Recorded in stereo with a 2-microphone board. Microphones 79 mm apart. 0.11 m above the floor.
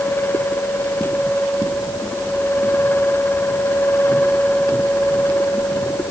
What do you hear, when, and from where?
Only background noise.